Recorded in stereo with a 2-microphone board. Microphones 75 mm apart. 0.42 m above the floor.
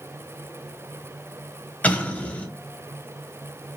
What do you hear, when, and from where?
1.8 s an explosion: 20° left (ahead or behind), 1.7 m